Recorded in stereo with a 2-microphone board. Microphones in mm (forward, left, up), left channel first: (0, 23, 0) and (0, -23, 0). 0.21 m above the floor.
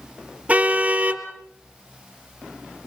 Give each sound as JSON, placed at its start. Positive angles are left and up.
{"t": 0.5, "sound": "a car horn", "side_deg": -30, "distance_m": 2.0}